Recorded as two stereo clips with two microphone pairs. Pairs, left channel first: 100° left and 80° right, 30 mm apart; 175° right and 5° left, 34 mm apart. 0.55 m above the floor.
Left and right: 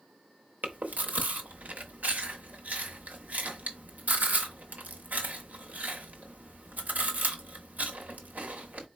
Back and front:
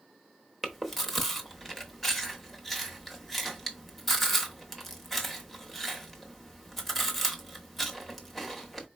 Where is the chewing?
95° right, 0.8 m.